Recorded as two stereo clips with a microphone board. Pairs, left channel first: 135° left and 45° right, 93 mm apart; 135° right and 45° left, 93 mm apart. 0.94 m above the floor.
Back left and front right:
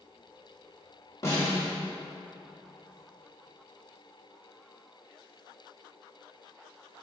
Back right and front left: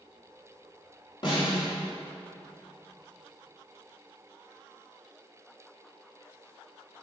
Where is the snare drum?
165° right, 3 m.